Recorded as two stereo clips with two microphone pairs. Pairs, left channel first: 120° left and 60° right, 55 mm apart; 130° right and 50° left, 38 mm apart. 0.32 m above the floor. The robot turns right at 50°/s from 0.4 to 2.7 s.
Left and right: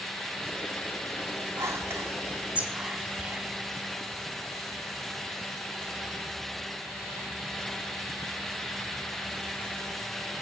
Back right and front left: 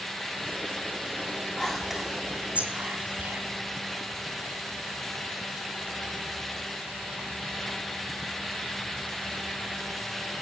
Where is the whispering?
40° right, 2 m; by 3.4 s 15° left, 2 m.